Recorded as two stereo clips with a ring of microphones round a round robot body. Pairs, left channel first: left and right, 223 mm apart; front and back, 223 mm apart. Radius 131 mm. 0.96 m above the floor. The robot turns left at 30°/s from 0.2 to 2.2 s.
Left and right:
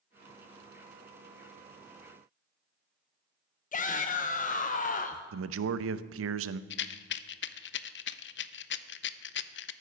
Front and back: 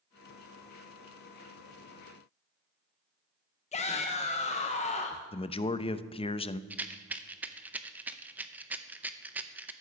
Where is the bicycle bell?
I don't hear a bicycle bell.